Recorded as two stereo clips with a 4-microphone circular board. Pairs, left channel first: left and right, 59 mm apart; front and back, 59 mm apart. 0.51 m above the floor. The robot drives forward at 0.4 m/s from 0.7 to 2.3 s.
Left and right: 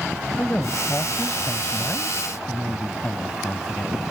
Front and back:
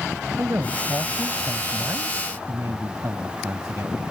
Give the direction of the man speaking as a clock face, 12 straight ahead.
7 o'clock.